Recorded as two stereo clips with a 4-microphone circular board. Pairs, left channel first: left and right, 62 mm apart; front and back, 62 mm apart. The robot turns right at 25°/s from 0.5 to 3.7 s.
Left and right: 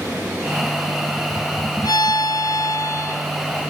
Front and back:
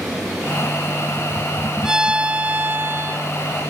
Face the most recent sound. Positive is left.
turn(degrees=145)